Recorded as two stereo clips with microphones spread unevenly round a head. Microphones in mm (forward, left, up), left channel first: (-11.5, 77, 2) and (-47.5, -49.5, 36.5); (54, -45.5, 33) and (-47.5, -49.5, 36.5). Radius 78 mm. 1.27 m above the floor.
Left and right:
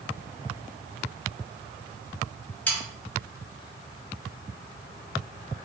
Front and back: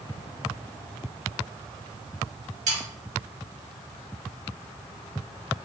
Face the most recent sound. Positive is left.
turn(degrees=160)